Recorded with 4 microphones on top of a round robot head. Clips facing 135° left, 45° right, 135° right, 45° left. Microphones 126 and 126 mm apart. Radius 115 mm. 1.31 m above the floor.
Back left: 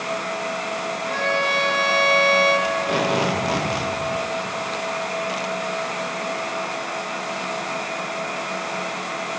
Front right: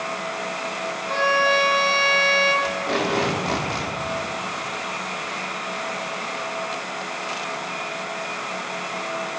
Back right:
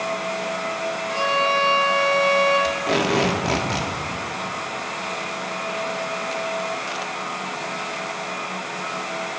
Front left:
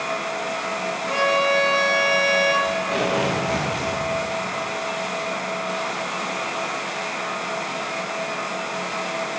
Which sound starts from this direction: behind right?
Tape being pulled, at 2.6 s.